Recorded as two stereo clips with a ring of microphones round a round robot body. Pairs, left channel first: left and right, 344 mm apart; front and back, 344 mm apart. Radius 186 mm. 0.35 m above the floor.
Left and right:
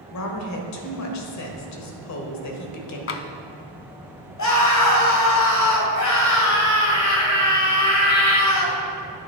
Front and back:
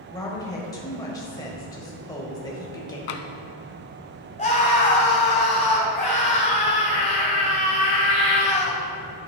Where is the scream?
70° left, 1.7 m.